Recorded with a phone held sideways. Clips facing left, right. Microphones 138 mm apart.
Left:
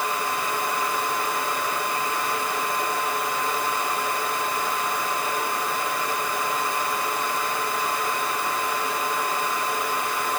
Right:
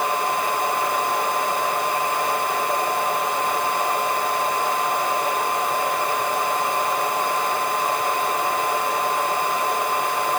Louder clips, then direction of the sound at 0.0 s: Right 4 dB; 55° right (ahead or behind).